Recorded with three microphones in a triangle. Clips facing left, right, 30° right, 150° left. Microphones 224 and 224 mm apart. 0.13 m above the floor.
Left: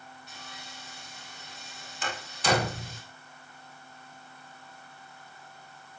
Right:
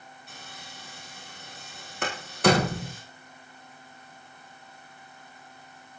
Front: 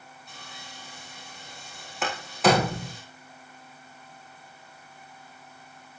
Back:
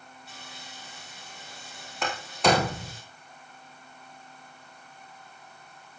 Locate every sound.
0.3 s sawing: 125° right, 8.5 m
2.0 s a door slam: 120° right, 5.5 m